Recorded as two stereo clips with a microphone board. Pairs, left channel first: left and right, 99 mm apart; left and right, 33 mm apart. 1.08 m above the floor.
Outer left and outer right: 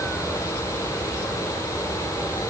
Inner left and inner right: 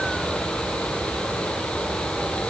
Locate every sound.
Only background noise.